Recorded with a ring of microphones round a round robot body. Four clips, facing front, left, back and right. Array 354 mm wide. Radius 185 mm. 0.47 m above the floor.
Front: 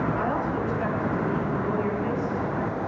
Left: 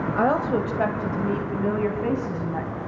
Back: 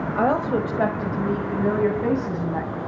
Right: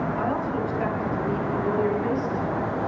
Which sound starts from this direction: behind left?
A woman speaking, at 0.1 s.